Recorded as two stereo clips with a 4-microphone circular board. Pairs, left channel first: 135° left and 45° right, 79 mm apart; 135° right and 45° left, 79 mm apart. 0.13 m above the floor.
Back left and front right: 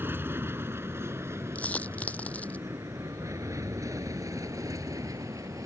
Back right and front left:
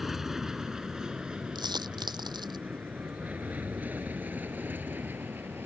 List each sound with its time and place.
0.0 s an aircraft: 35° right; by 5.7 s 15° right
1.6 s a dropped coin: 65° left